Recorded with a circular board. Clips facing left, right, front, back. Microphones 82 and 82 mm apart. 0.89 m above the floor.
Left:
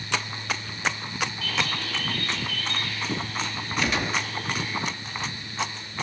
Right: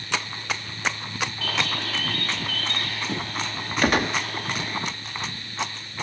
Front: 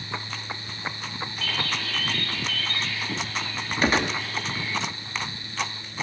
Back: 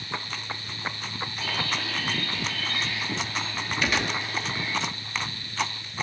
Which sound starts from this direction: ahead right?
A gunshot, at 3.8 s.